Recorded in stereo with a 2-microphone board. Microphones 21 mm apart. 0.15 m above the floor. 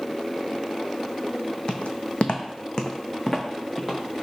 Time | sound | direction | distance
1.7 | footsteps | 75° left (ahead or behind) | 0.5 m